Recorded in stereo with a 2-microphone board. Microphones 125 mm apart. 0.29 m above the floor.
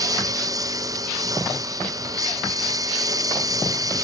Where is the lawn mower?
25° right (ahead or behind).